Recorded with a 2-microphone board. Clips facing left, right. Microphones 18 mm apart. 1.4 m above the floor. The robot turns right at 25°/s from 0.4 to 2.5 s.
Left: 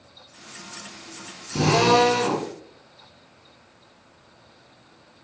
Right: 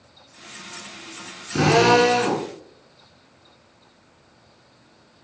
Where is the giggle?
No giggle in this recording.